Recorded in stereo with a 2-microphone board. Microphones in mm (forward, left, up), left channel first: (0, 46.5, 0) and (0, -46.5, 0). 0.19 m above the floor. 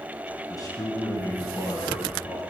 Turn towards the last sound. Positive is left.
turn(degrees=55)  # may be behind; listen again after turning